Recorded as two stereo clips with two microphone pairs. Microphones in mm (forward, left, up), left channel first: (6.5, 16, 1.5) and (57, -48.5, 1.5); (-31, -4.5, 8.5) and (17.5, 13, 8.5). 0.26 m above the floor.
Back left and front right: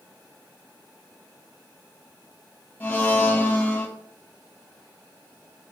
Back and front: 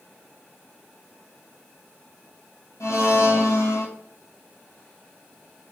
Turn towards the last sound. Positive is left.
turn(degrees=-160)